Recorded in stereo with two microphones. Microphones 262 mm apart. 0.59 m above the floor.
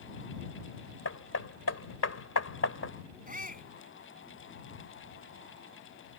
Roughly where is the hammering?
Left.